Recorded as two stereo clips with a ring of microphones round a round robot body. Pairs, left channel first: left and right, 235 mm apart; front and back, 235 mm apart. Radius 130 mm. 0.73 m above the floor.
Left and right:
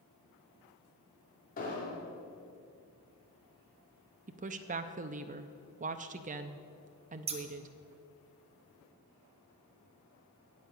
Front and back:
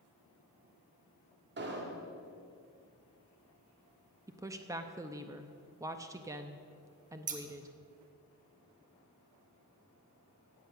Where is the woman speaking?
115° right, 0.5 m.